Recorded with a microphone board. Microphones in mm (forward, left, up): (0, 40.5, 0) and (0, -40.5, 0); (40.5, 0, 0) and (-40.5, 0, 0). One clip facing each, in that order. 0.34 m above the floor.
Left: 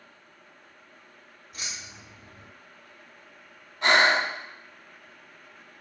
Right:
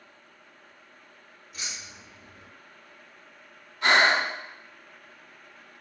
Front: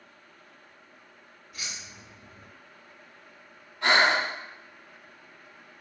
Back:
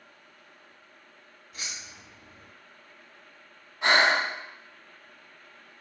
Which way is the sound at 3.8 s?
125° left.